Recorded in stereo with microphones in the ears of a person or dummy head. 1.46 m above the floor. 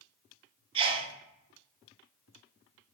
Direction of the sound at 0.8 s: 30° right (ahead or behind).